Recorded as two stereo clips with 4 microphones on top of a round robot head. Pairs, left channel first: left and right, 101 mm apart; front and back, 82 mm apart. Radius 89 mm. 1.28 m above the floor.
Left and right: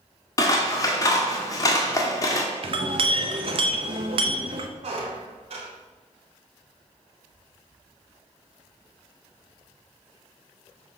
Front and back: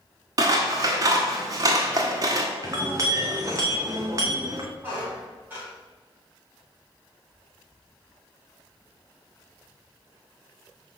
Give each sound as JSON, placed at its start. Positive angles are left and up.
{"t": 0.4, "sound": "scissors", "azimuth_deg": 140, "distance_m": 1.2}
{"t": 2.6, "sound": "a clink", "azimuth_deg": -115, "distance_m": 0.8}
{"t": 4.8, "sound": "a squeak", "azimuth_deg": -110, "distance_m": 2.0}